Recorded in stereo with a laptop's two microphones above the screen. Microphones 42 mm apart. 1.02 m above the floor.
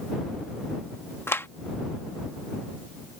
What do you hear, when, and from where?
1.3 s a clap: 75° left (ahead or behind)